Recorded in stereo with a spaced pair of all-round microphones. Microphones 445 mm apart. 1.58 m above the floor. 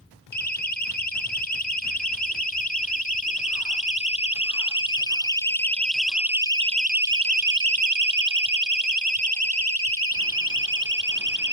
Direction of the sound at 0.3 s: 20° left (ahead or behind).